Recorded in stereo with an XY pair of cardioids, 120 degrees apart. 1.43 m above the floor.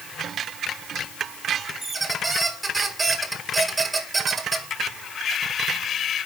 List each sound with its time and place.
1.8 s a squeak: 15° right, 2 m